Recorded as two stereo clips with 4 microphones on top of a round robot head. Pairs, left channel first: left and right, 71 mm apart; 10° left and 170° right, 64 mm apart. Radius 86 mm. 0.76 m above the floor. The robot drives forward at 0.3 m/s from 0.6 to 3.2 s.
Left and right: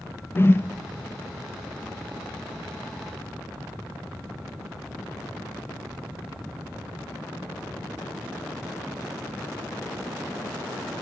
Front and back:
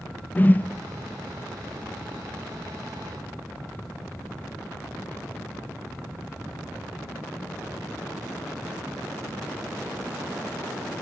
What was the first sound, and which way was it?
A whoosh, 55° left.